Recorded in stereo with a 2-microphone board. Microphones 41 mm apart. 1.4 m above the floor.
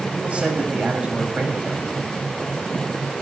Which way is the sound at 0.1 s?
30° right (ahead or behind).